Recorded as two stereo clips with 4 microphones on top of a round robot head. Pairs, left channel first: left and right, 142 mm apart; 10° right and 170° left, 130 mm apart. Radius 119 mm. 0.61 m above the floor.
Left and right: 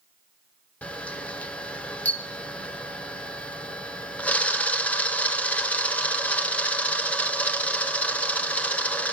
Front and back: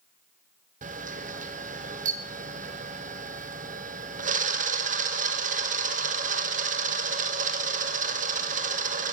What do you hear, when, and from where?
0.8 s a camera shutter: 170° left, 1.9 m